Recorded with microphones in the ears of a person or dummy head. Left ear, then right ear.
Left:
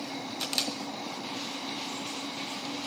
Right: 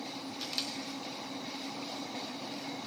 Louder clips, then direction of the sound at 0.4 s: Left 6 dB; 25° left (ahead or behind).